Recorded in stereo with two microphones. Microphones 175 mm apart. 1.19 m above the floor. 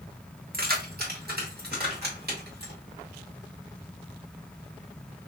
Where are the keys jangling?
60° right (ahead or behind), 1.2 m; by 2.7 s 65° right (ahead or behind), 2.5 m.